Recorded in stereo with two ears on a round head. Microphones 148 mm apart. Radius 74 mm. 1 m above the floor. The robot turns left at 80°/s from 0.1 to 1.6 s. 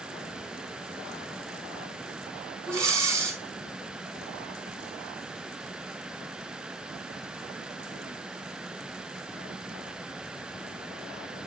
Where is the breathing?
15° right (ahead or behind), 2.5 m.